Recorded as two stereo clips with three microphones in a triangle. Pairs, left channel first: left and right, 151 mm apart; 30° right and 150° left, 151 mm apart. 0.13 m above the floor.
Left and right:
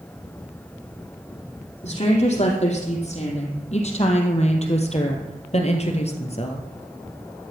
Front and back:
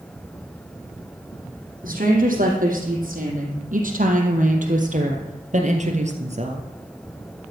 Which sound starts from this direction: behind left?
A woman speaking, at 1.8 s.